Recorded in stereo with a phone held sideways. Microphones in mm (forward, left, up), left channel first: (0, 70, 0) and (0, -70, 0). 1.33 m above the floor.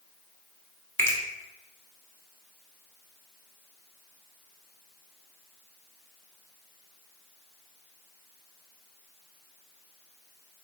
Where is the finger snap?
20° left (ahead or behind), 0.9 m.